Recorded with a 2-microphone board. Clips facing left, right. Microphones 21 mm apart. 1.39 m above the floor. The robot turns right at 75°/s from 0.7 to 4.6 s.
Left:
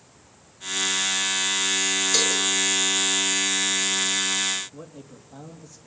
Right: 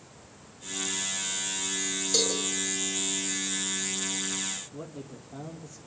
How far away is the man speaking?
About 2.5 m.